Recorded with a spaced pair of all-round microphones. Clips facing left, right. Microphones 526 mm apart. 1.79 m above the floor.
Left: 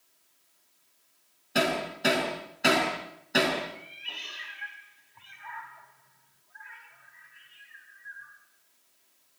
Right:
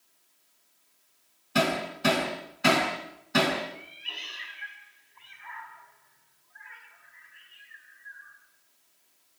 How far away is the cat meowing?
About 3.5 m.